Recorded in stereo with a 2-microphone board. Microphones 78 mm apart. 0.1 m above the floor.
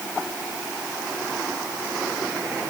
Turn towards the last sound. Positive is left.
No sound to turn to.